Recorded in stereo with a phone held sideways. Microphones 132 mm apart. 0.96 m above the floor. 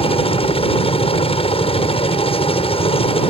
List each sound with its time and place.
0.0 s a helicopter: 45° left (ahead or behind)